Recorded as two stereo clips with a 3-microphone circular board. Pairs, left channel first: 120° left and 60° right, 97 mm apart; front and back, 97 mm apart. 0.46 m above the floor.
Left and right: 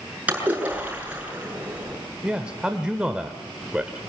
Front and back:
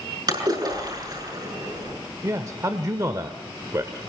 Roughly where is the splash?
Behind right.